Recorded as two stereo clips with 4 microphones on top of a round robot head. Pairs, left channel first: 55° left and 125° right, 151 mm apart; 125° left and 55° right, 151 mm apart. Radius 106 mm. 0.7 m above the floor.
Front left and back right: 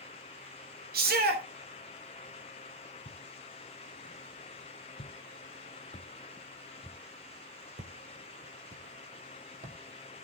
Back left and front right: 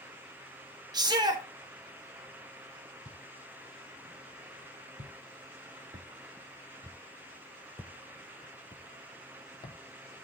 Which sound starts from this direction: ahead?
Footsteps, at 3.0 s.